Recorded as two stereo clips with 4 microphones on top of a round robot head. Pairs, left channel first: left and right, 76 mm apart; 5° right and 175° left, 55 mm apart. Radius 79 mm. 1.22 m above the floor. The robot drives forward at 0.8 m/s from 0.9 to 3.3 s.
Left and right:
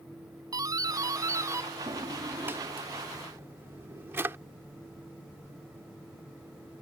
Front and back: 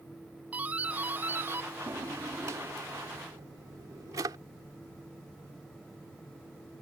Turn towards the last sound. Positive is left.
turn(degrees=-150)